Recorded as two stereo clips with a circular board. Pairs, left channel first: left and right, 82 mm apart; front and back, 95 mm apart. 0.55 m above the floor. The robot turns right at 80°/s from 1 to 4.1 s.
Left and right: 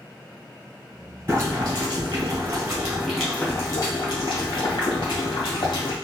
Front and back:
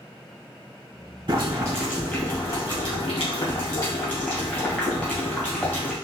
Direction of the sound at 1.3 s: 150° right.